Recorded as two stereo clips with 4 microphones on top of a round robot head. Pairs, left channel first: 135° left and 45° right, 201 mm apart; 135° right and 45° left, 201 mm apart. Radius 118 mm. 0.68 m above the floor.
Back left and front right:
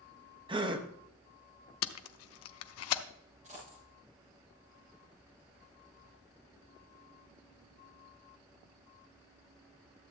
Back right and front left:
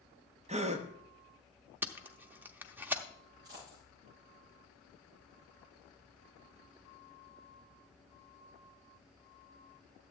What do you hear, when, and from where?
0.5 s a gasp: 10° left, 1.0 m
1.8 s tape being pulled: 125° left, 0.7 m
3.4 s a dropped coin: 15° left, 7 m